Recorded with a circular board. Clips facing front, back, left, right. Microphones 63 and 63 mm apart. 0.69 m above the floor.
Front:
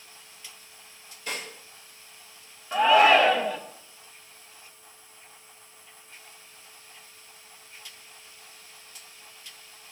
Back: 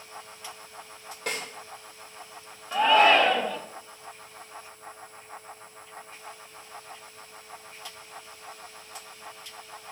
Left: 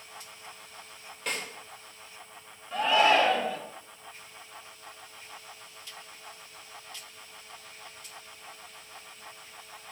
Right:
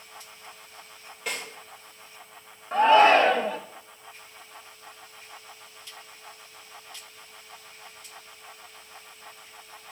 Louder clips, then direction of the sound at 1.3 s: Back 2 dB, even; straight behind.